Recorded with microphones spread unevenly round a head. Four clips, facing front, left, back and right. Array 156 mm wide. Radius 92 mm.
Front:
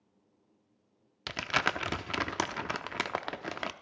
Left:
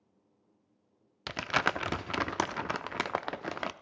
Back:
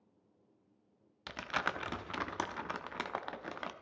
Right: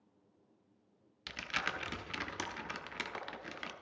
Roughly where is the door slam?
I don't hear a door slam.